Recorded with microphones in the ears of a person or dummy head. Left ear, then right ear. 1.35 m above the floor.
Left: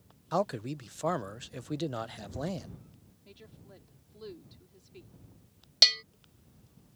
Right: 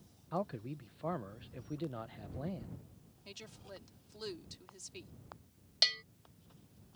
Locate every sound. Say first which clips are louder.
0.3 s a man speaking: left 8 dB; 75° left (ahead or behind)
3.2 s a woman speaking: right 4 dB; 50° right (ahead or behind)
5.8 s a bell: left 9 dB; 20° left (ahead or behind)